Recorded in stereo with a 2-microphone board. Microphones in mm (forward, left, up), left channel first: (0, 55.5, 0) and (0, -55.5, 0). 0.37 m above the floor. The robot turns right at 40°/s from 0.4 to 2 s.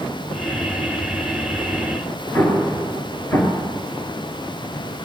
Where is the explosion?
20° left (ahead or behind), 2 m.